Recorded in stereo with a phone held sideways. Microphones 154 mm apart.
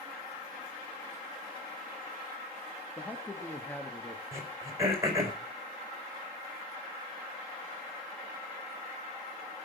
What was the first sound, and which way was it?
A man speaking, 10° left (ahead or behind).